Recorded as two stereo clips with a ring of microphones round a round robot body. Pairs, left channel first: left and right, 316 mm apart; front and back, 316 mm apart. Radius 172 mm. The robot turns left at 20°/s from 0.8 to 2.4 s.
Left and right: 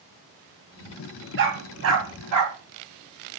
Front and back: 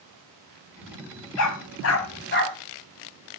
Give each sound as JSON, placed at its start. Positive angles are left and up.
{"t": 1.4, "sound": "a dog barking", "azimuth_deg": -35, "distance_m": 1.3}